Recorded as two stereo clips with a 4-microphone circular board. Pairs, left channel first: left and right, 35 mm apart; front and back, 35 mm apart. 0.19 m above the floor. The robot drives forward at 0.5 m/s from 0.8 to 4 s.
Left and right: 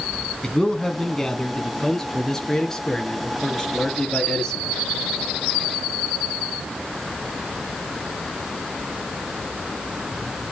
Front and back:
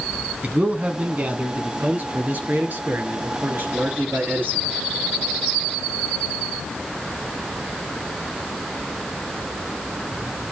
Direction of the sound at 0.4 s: 155° left.